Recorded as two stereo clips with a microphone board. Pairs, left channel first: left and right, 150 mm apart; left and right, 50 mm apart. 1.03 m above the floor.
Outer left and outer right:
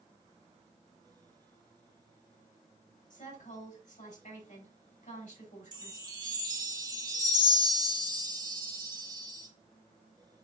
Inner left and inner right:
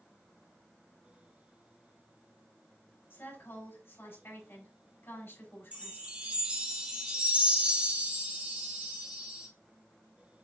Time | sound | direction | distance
3.1 | a woman speaking | 60° left (ahead or behind) | 4.5 m
5.7 | a chime | 30° right (ahead or behind) | 1.8 m